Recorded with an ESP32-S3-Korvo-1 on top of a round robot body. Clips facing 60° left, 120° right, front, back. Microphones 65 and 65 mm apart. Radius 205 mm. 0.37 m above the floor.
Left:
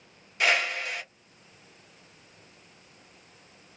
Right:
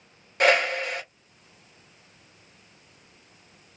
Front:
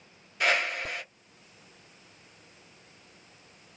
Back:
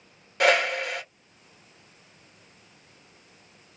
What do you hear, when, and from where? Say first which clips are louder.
0.4 s a whoosh: right 5 dB, back 6 dB; 165° right, 1.5 m